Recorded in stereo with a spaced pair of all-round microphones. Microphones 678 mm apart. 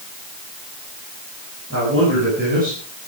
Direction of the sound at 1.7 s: 20° right (ahead or behind).